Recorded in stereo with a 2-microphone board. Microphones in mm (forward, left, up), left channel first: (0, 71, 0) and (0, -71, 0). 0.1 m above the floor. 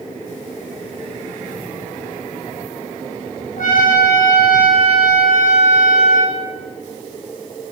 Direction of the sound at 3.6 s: 70° left (ahead or behind).